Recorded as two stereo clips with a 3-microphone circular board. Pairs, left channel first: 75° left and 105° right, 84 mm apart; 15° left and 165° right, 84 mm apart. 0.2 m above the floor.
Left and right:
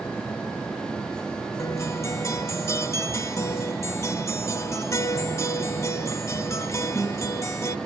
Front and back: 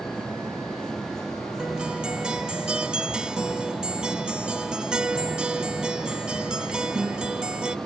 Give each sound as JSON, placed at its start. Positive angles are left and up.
{"t": 1.6, "sound": "a guitar", "azimuth_deg": 115, "distance_m": 0.6}